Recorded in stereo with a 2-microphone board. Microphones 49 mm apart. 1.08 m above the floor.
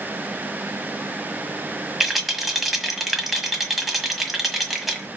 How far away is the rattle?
About 1.5 m.